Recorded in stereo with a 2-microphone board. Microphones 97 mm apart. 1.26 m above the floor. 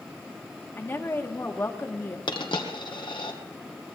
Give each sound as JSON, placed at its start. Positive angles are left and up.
{"t": 0.8, "sound": "a woman speaking", "side_deg": 25, "distance_m": 1.5}
{"t": 2.3, "sound": "a dropped coin", "side_deg": 55, "distance_m": 2.0}